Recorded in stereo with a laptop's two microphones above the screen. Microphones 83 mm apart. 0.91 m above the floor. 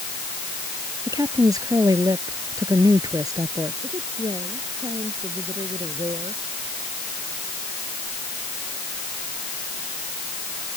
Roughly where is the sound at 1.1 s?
Right.